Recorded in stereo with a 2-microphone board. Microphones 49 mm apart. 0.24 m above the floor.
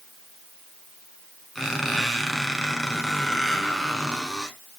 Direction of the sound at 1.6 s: 5° left (ahead or behind).